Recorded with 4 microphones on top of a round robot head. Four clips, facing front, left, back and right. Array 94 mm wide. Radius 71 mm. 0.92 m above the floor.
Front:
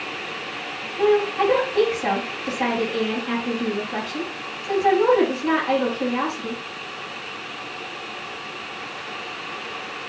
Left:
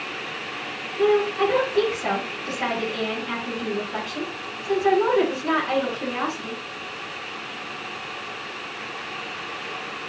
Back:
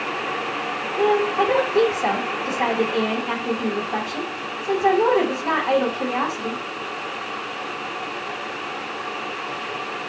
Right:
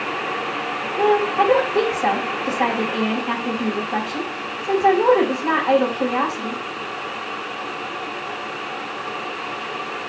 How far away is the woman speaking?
About 5 m.